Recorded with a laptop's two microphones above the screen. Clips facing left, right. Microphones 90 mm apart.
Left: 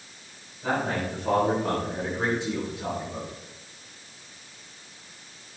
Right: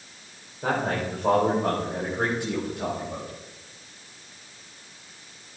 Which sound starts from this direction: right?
A man speaking, at 0.6 s.